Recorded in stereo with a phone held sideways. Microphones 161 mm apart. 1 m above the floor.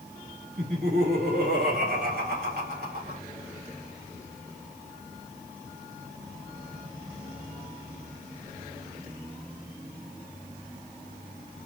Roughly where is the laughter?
Right.